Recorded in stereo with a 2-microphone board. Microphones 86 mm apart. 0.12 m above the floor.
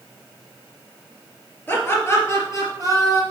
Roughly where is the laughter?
Left.